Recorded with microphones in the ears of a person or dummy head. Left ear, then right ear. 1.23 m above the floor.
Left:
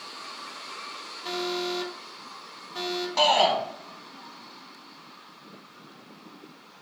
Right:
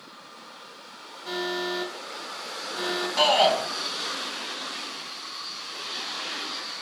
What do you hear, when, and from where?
1.2 s an alarm: 60° left (ahead or behind), 3.5 m
3.2 s a shout: 10° left (ahead or behind), 2.5 m